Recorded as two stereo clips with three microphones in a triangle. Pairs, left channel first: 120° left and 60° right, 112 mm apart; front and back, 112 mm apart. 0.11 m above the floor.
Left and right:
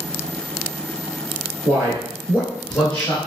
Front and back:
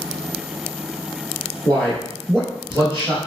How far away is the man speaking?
About 1.2 m.